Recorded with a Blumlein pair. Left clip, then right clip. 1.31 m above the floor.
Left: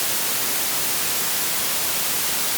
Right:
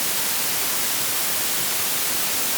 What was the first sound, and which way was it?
Only background noise.